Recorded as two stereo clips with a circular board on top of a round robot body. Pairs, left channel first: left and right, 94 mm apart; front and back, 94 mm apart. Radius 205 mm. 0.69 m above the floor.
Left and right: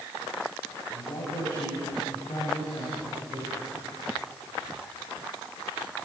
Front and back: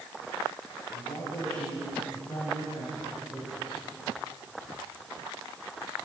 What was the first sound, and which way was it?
A man speaking, 55° left.